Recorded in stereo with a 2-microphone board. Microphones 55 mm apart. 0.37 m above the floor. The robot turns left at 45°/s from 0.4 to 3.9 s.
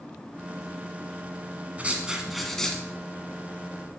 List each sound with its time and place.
1.8 s writing: 155° right, 1.3 m; by 2.8 s 160° left, 1.3 m